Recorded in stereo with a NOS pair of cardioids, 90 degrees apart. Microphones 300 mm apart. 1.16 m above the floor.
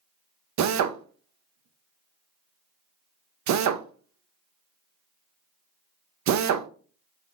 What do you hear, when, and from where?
0.6 s a drill: 65° right, 0.7 m